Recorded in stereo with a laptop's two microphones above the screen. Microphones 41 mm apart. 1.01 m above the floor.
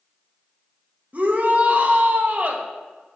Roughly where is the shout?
Right.